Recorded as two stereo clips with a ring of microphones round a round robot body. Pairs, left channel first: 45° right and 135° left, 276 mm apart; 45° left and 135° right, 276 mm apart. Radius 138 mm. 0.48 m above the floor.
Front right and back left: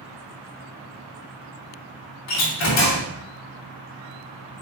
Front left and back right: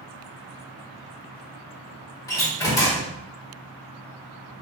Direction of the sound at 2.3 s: 30° right.